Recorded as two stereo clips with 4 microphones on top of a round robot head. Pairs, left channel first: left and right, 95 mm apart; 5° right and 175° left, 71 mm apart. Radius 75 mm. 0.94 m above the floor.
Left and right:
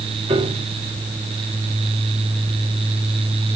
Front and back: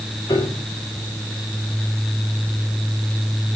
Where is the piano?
60° right, 3 m.